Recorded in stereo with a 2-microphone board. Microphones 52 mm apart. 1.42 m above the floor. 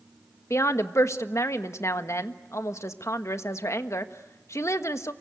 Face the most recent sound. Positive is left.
turn(degrees=80)